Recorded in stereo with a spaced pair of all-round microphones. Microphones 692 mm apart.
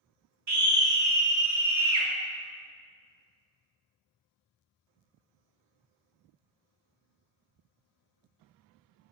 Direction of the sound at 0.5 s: 60° right (ahead or behind).